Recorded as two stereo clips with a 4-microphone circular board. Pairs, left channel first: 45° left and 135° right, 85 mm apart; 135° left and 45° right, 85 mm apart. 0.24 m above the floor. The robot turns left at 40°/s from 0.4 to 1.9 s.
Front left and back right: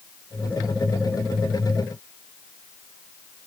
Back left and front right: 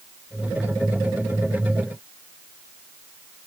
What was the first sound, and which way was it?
Only background noise.